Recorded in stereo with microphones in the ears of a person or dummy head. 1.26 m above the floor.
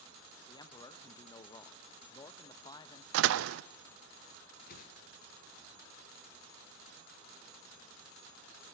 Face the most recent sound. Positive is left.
turn(degrees=50)  # may be behind; listen again after turning